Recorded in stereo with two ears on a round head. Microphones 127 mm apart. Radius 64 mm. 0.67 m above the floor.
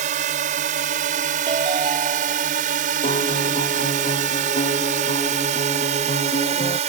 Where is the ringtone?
35° right (ahead or behind).